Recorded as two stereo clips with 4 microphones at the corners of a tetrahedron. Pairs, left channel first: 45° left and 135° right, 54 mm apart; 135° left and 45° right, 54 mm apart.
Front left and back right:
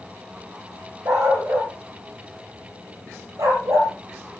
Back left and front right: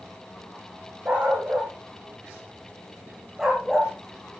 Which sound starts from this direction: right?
A dog barking, at 1.1 s.